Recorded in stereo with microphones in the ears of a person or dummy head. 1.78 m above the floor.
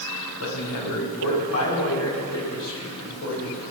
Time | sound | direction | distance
0.4 | a man speaking | 85° left | 6 m